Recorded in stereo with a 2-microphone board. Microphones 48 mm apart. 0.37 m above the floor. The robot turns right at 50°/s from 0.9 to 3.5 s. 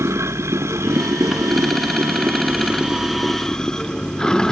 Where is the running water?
115° right; by 4.5 s 15° left.